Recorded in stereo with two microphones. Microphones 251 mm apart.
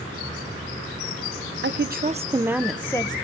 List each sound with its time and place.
1.6 s a woman speaking: 55° right (ahead or behind), 0.8 m; by 3.1 s 20° left (ahead or behind), 1.0 m